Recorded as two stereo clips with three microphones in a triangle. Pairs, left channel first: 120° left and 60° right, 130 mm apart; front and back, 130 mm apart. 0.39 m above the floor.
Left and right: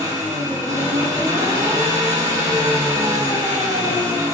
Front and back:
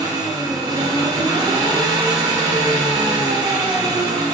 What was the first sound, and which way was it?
An engine running, 125° right.